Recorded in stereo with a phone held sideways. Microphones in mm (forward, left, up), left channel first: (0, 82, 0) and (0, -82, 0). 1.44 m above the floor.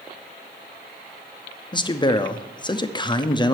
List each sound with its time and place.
1.7 s a man speaking: 25° left (ahead or behind), 0.6 m